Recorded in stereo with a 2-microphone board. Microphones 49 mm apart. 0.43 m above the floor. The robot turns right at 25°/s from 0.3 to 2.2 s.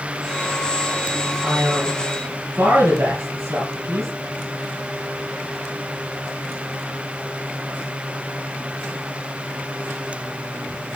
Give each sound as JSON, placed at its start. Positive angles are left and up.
{"t": 1.4, "sound": "a man speaking", "side_deg": -55, "distance_m": 3.0}